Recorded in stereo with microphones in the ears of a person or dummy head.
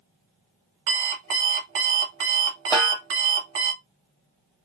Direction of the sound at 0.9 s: 60° right (ahead or behind).